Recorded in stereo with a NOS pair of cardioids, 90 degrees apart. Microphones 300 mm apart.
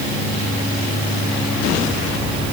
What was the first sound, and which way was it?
Only background noise.